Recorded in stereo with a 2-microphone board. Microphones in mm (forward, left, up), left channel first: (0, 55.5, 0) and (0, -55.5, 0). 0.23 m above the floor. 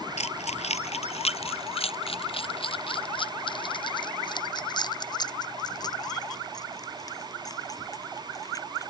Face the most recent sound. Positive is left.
turn(degrees=30)  # may be behind; listen again after turning